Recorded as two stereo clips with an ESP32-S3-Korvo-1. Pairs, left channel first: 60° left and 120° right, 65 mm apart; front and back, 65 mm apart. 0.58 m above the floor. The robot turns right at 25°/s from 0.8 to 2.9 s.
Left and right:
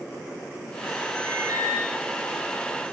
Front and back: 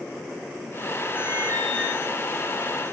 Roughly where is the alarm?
Behind right.